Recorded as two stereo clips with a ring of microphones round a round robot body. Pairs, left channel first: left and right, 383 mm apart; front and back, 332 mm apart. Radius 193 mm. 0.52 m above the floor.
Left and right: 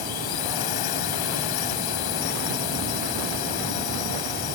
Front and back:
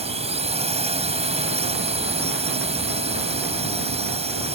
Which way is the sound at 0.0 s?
110° left.